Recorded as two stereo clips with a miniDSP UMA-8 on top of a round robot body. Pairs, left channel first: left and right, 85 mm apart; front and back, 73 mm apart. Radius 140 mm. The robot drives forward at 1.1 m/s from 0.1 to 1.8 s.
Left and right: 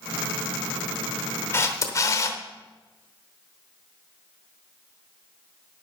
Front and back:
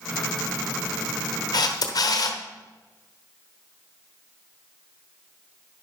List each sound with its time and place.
1.5 s a camera shutter: 30° left, 1.4 m; by 2.4 s 35° left, 1.1 m